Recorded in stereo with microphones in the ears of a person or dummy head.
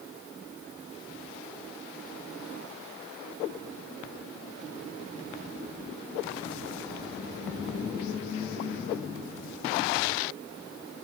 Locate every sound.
Only background noise.